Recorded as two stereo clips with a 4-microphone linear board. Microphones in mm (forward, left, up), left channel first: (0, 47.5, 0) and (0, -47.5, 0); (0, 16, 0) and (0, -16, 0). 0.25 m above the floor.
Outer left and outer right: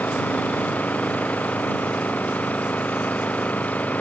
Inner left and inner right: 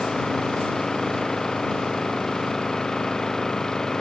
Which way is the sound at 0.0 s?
15° left (ahead or behind).